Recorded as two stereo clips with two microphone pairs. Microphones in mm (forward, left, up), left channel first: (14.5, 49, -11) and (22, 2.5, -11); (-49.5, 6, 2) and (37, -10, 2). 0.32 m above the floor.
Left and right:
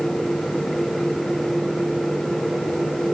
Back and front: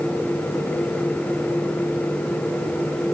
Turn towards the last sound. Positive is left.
No sound to turn to.